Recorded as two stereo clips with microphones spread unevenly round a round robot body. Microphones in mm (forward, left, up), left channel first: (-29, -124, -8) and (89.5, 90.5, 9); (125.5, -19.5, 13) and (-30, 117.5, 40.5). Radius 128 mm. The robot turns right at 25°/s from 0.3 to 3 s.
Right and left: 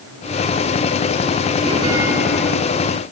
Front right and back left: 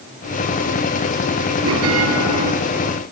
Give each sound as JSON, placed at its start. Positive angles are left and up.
{"t": 1.6, "sound": "a bell", "azimuth_deg": 135, "distance_m": 3.0}